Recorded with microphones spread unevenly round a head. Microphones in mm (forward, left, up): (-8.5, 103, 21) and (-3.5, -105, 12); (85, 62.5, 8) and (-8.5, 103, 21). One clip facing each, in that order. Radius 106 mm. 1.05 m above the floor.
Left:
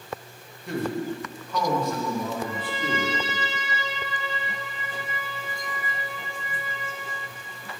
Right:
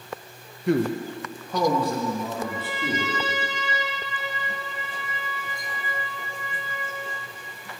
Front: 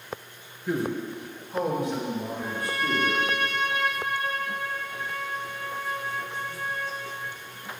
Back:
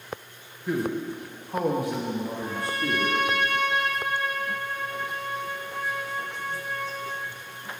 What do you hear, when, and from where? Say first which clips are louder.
0.7 s a man speaking: right 5 dB, back 1 dB; 110° right, 0.7 m; by 3.3 s 160° right, 2 m
2.3 s a trumpet: even, even; 115° right, 2.5 m